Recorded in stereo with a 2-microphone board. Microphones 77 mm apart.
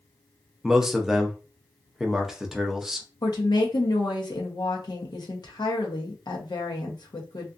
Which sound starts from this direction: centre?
A man speaking, at 0.6 s.